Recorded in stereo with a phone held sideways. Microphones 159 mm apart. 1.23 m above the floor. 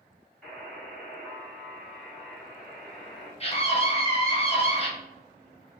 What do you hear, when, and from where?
0.4 s a buzzer: 5° left (ahead or behind), 1.5 m
3.4 s a scream: 40° left (ahead or behind), 1.1 m